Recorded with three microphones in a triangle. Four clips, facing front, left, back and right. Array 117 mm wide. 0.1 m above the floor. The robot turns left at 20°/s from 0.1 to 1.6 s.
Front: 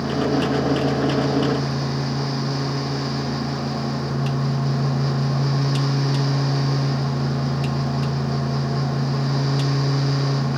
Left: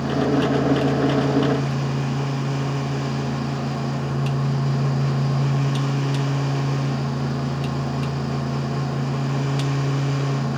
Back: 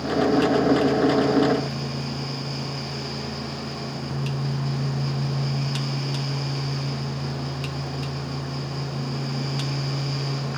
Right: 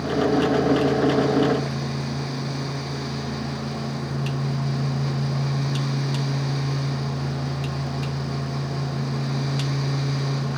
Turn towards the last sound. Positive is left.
No sound to turn to.